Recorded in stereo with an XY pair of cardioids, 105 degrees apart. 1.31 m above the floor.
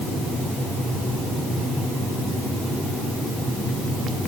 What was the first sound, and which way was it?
Only background noise.